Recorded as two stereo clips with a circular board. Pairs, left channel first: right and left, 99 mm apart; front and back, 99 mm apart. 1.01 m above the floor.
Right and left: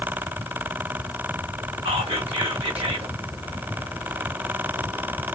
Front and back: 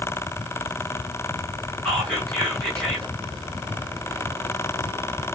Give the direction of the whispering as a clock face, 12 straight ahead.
9 o'clock.